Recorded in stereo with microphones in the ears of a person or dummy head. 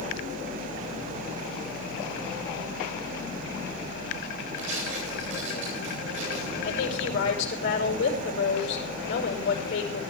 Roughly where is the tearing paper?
Right.